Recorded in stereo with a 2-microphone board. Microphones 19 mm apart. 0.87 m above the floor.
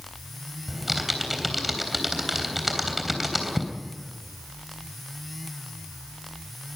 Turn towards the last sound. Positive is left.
turn(degrees=-10)  # may be behind; listen again after turning